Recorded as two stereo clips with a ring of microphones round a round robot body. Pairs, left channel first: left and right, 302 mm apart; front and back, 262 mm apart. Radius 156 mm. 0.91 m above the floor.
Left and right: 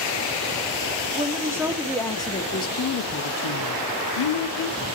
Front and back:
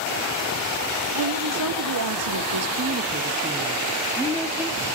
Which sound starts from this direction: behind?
A woman speaking, at 1.1 s.